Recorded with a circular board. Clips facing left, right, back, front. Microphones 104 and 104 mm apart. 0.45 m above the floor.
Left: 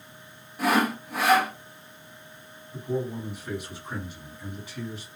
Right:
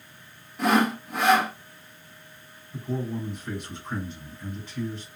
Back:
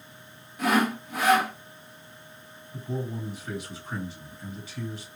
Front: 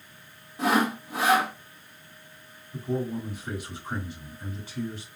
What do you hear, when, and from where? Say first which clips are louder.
0.6 s sawing: right 2 dB, even; 5° left, 1.0 m
2.7 s a man speaking: left 1 dB, front 4 dB; 15° left, 2 m